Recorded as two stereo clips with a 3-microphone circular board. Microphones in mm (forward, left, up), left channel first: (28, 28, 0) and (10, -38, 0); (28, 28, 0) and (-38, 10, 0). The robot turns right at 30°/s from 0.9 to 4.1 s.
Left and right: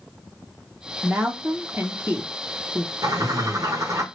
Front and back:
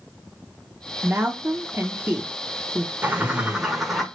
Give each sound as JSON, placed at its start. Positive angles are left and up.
{"t": 1.0, "sound": "a woman speaking", "azimuth_deg": -165, "distance_m": 0.7}
{"t": 3.0, "sound": "a bird", "azimuth_deg": -105, "distance_m": 0.8}